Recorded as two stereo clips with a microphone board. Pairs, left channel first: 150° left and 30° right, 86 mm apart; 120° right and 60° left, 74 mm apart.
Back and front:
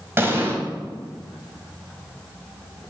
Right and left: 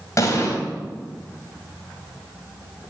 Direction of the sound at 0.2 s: 85° right.